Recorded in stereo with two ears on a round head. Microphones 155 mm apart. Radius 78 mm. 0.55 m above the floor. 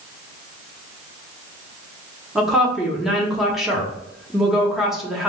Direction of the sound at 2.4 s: Centre (ahead or behind).